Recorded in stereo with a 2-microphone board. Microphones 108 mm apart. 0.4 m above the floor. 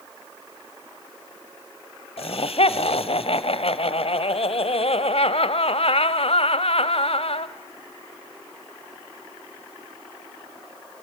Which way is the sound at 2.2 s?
65° left (ahead or behind).